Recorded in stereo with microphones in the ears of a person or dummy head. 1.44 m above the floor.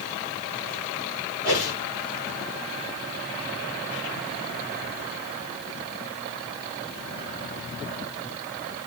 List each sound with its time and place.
1.4 s a whoosh: 25° right (ahead or behind), 3 m